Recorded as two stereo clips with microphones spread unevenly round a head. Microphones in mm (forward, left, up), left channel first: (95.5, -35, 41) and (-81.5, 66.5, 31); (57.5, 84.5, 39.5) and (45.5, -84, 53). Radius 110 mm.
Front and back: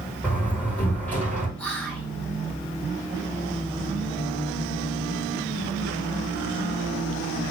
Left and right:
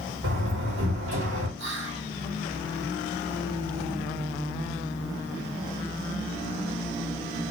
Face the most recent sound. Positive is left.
turn(degrees=-115)